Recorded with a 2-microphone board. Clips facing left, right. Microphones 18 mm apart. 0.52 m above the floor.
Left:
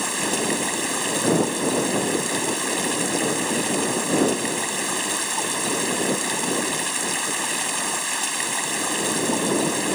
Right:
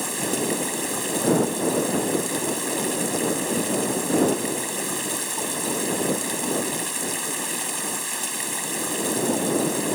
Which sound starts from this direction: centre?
Running water, at 0.0 s.